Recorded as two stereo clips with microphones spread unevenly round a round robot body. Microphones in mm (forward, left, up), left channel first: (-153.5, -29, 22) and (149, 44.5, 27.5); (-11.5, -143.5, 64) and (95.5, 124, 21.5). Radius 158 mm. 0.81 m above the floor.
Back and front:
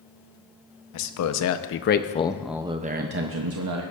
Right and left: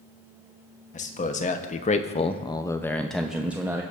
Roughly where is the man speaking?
Behind.